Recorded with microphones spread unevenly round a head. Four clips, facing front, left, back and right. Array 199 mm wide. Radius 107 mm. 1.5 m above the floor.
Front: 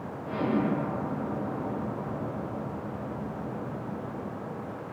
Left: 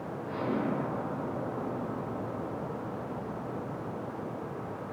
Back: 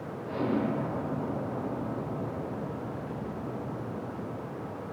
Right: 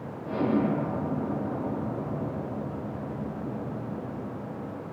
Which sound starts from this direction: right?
An explosion, at 0.2 s.